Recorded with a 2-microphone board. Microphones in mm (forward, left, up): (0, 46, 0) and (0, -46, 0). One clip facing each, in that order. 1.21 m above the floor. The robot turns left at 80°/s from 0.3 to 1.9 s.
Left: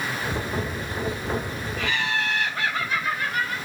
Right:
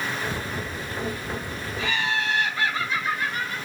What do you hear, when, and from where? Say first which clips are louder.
1.8 s laughter: even; 70° left (ahead or behind), 5 m; by 3.6 s 60° left (ahead or behind), 5 m